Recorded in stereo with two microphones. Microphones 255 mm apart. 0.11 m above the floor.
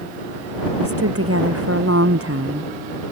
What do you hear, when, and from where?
0.8 s a woman speaking: 60° right (ahead or behind)